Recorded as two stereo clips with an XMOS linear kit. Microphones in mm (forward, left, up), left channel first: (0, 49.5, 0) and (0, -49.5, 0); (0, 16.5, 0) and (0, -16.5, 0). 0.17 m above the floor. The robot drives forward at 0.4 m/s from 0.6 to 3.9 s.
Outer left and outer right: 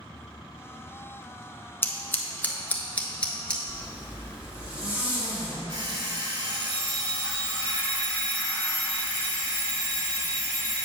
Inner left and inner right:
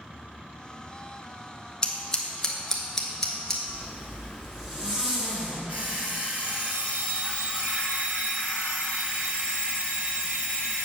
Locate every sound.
1.8 s scissors: 20° left (ahead or behind), 0.6 m; by 3.6 s 10° left (ahead or behind), 1.2 m
3.7 s a zipper: 15° right (ahead or behind), 1.9 m
5.7 s an alarm clock: 50° right (ahead or behind), 2 m